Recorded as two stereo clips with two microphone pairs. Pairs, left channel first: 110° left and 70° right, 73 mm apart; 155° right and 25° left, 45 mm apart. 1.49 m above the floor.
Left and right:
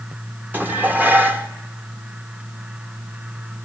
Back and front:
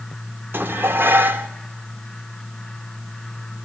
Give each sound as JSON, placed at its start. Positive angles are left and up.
{"t": 0.5, "sound": "dishes clattering", "azimuth_deg": -10, "distance_m": 1.6}